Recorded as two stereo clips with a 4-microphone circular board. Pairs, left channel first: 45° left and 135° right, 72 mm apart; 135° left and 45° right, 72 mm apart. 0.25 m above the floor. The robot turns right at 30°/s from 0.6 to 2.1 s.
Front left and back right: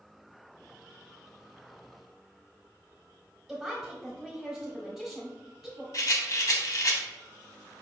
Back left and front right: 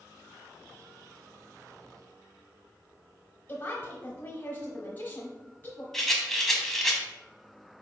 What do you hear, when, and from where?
3.5 s a woman speaking: 145° left, 1.0 m
5.9 s a rattle: 50° left, 0.8 m